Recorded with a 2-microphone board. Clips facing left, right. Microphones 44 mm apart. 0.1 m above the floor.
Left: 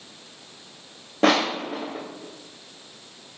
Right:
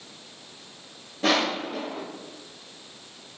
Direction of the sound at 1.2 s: 80° left.